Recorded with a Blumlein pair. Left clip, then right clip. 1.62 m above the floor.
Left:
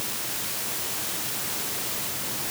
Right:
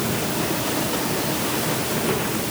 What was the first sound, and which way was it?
Only background noise.